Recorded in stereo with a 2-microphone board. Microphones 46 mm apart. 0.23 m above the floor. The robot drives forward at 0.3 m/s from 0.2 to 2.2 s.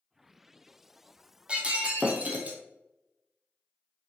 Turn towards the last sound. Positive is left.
turn(degrees=-35)  # may be behind; listen again after turning